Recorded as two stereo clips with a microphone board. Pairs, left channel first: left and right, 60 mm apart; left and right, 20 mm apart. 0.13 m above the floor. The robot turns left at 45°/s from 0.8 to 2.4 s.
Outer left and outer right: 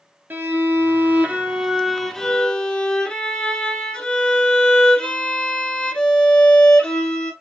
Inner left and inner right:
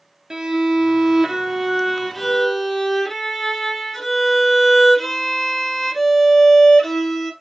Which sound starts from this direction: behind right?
A violin, at 0.3 s.